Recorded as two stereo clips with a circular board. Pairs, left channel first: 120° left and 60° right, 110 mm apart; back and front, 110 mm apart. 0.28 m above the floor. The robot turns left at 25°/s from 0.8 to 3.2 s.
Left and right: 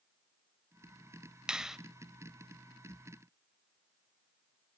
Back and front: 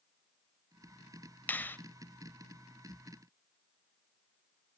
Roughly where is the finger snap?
Behind right.